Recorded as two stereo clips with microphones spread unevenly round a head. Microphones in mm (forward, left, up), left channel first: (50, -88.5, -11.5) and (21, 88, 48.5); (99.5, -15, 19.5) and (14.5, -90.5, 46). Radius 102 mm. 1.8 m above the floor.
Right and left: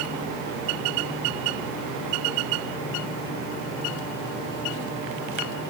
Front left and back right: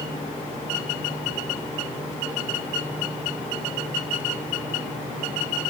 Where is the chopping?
No chopping in this recording.